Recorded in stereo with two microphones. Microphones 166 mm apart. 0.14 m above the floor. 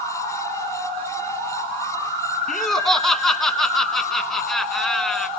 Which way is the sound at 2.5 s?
Centre (ahead or behind).